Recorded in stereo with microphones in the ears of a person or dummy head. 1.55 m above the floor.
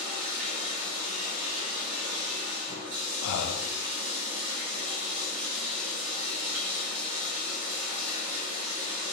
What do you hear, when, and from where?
0.0 s running water: 50° right (ahead or behind), 1.4 m
3.2 s breathing: 90° left, 0.6 m